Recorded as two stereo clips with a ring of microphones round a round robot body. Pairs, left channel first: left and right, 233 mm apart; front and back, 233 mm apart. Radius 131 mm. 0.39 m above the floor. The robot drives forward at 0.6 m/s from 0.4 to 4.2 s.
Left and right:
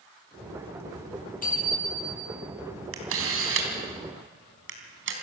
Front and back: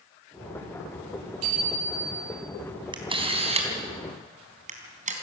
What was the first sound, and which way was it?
A bicycle bell, 145° left.